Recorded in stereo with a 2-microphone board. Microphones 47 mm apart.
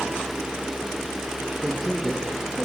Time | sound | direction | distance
1.6 | a man speaking | centre (ahead or behind) | 3 m